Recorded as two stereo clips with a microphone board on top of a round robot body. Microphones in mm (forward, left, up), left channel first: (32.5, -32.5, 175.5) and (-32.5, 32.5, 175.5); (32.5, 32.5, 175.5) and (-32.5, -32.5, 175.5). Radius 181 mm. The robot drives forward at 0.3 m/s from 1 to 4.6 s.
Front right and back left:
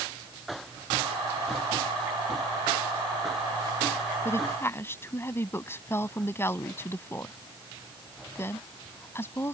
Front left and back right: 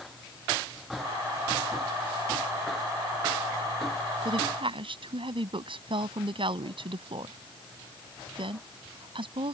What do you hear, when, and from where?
4.2 s a woman speaking: 110° right